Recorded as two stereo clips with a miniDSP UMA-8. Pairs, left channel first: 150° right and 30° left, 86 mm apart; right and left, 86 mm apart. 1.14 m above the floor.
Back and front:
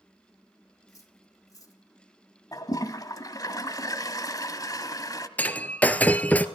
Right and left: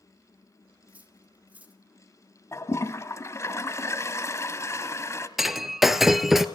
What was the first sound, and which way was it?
Cutlery clinking, 160° left.